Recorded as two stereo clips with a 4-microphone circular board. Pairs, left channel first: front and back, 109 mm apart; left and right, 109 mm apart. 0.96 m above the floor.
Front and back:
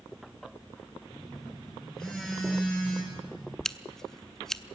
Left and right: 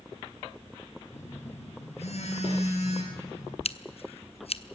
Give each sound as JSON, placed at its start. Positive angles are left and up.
{"t": 1.1, "sound": "a phone buzzing", "azimuth_deg": 85, "distance_m": 6.0}
{"t": 3.6, "sound": "scissors", "azimuth_deg": 85, "distance_m": 0.7}